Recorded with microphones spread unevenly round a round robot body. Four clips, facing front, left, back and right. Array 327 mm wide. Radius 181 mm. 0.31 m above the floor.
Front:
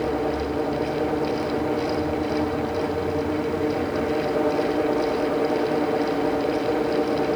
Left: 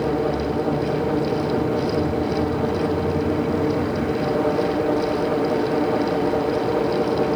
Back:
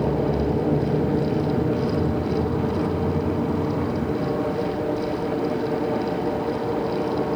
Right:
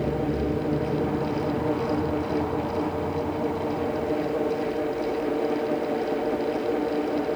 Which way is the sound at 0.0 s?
Straight behind.